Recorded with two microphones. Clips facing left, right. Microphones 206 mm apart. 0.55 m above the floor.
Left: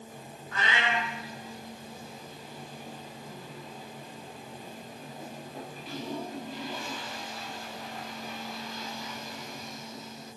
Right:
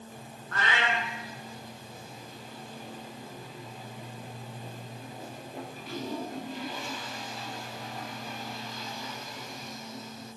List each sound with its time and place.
0.5 s a cat meowing: 65° right (ahead or behind), 1.1 m